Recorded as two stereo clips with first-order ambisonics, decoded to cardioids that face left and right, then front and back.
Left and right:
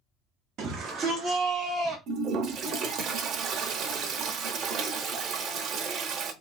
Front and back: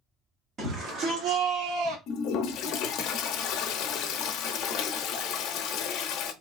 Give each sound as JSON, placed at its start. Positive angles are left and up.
{"t": 0.6, "sound": "a shout", "azimuth_deg": -130, "distance_m": 0.7}
{"t": 2.1, "sound": "a toilet flushing", "azimuth_deg": -40, "distance_m": 0.5}